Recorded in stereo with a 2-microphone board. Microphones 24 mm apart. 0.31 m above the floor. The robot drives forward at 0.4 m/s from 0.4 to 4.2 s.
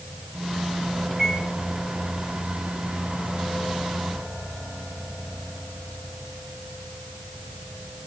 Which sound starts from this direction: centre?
A microwave, at 1.1 s.